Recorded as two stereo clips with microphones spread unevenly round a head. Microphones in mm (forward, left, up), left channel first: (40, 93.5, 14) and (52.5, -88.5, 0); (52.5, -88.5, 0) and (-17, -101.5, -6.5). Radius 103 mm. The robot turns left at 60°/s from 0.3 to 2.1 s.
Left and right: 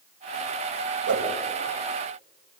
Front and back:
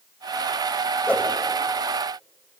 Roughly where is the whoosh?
Ahead right.